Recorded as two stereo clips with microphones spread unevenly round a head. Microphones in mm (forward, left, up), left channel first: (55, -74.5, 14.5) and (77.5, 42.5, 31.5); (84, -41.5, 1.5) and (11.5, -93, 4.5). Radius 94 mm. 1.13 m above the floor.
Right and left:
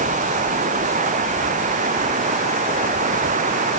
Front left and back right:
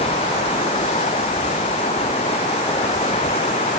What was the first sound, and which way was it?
Running water, 70° left.